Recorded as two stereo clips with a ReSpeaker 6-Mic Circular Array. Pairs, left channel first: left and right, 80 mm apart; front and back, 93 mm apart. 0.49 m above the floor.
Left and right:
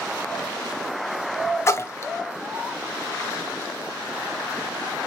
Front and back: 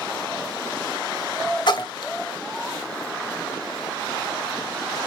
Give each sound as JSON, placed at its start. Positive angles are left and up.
{"t": 1.7, "sound": "a splash", "azimuth_deg": 35, "distance_m": 0.6}